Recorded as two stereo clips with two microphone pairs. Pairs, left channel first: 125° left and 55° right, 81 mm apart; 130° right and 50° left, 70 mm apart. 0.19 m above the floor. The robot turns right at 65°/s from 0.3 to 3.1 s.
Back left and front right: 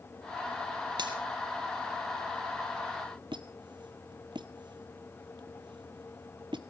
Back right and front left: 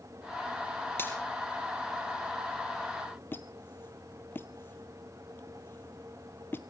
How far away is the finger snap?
About 3.5 m.